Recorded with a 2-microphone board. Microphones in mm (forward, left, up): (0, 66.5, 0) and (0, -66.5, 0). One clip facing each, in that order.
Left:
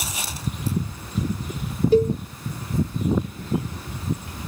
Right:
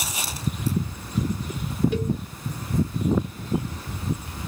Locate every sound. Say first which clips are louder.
1.9 s a cowbell: left 9 dB; 35° left (ahead or behind), 0.6 m